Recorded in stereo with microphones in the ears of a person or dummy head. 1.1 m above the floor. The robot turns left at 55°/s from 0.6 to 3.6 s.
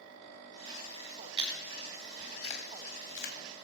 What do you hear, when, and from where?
1.4 s chewing: 30° right (ahead or behind), 2.5 m; by 3.4 s 80° left, 2.5 m